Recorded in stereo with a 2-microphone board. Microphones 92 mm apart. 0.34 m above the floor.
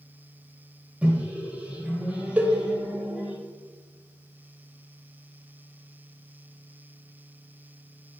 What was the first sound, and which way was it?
A microwave, 15° right (ahead or behind).